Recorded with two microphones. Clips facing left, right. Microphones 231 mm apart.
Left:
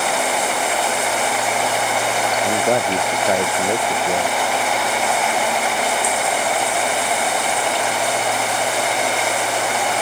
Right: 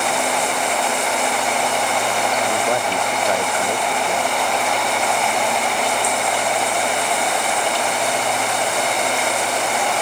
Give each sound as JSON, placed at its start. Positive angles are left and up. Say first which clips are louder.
{"t": 2.5, "sound": "a man speaking", "louder": "left 3 dB", "side_deg": 25}